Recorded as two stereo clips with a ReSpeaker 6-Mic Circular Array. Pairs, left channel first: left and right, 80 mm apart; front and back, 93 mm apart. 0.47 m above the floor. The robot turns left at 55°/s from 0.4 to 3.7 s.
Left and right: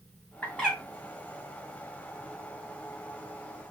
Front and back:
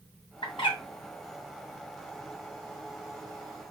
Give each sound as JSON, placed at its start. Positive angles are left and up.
{"t": 0.4, "sound": "a bird", "azimuth_deg": 15, "distance_m": 1.9}